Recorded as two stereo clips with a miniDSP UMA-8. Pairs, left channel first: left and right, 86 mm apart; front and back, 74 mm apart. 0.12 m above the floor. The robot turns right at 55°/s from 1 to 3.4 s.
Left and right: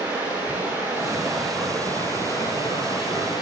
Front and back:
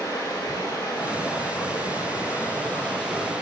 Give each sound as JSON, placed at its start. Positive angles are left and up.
{"t": 0.0, "sound": "running water", "azimuth_deg": -30, "distance_m": 3.5}